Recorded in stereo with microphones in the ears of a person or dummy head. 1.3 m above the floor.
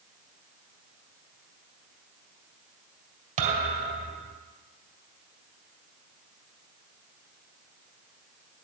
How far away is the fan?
I don't hear a fan.